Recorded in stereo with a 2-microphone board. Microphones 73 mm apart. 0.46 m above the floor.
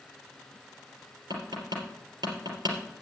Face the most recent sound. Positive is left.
turn(degrees=-80)